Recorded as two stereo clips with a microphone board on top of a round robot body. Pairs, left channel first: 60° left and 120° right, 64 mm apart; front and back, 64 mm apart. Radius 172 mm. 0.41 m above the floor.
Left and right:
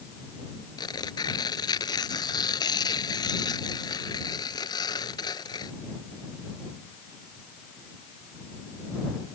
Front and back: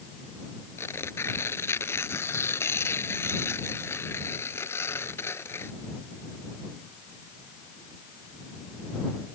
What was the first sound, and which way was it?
Tearing paper, 55° left.